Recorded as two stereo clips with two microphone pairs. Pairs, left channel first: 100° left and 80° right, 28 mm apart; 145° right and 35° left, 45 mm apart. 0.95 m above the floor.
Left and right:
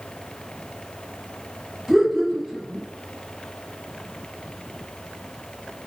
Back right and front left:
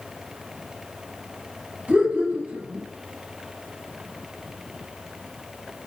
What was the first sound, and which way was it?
Laughter, 15° left.